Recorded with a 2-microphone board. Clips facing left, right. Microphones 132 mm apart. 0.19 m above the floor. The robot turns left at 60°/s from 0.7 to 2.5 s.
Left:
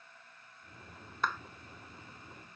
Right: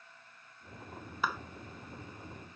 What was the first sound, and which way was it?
A clap, 5° right (ahead or behind).